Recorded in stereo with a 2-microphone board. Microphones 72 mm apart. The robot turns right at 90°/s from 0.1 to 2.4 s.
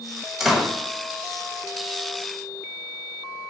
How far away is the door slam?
About 1.2 m.